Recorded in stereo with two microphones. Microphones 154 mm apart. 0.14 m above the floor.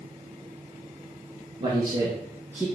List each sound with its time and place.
1.6 s a man speaking: 30° right (ahead or behind), 2 m; by 2.6 s 15° right (ahead or behind), 3 m